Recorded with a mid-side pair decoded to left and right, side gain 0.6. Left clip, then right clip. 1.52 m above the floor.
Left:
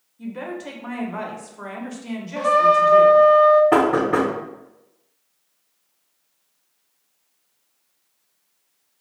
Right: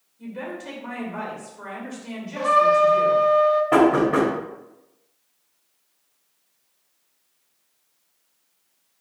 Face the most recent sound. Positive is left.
turn(degrees=30)